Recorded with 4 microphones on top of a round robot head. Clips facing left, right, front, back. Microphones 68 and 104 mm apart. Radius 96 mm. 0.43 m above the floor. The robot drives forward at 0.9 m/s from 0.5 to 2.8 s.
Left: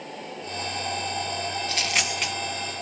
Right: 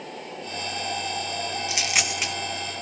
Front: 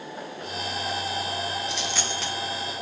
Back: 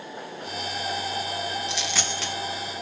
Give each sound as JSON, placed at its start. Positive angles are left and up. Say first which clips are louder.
{"t": 1.7, "sound": "a dropped coin", "louder": "even, even", "azimuth_deg": -165, "distance_m": 1.9}